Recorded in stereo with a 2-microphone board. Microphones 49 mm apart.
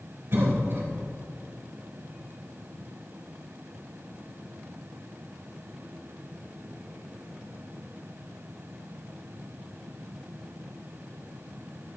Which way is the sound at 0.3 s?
55° right (ahead or behind).